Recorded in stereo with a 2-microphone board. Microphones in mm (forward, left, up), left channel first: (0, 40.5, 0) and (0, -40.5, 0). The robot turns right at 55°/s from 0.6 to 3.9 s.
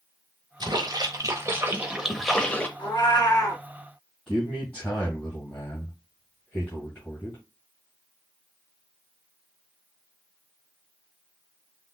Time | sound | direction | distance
0.6 | a splash | 85° right | 0.8 m
2.8 | a cat meowing | 100° left | 1.3 m
4.3 | a man speaking | 15° left (ahead or behind) | 2 m